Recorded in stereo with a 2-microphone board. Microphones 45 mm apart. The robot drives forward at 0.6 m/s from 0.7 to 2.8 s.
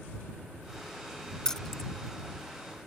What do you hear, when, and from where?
1.4 s keys jangling: 15° left (ahead or behind)